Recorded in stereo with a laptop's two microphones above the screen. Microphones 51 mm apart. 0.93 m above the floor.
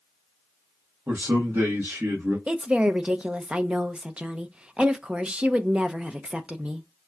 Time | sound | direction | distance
1.1 | a man speaking | 50° right (ahead or behind) | 1.5 m
2.5 | a woman speaking | 20° right (ahead or behind) | 0.6 m